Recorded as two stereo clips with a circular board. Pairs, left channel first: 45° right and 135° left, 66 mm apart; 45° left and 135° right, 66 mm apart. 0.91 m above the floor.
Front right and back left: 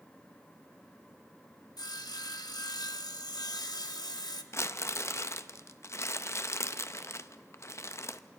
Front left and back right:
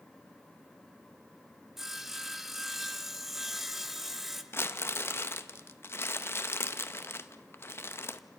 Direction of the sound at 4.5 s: 5° right.